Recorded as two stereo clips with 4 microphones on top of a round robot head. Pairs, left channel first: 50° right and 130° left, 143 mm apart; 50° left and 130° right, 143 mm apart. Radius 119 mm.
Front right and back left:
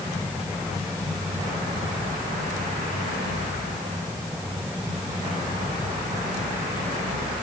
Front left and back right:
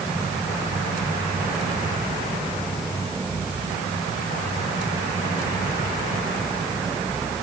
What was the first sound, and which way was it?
Only background noise.